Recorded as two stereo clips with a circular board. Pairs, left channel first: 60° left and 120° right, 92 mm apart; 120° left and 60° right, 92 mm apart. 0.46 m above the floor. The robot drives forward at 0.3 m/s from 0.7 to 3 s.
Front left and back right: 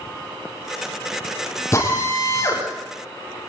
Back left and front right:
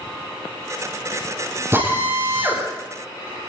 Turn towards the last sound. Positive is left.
turn(degrees=0)